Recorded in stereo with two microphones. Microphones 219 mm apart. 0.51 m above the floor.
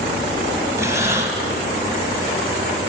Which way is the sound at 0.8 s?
15° right (ahead or behind).